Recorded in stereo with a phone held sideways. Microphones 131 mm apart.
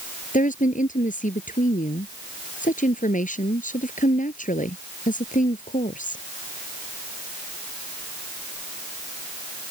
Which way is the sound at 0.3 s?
85° left.